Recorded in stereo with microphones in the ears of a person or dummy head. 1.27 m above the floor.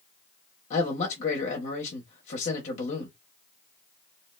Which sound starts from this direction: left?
A man speaking, at 0.7 s.